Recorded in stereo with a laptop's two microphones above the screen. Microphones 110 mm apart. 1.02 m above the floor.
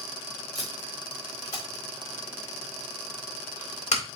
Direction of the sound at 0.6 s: 85° left.